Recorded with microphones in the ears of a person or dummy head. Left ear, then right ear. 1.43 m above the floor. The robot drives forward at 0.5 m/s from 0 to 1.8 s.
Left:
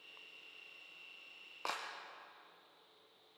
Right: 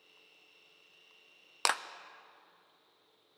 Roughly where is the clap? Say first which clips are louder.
Right 10 dB; right.